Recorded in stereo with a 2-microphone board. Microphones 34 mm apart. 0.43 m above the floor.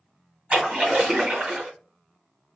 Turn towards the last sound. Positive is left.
turn(degrees=-35)  # may be behind; listen again after turning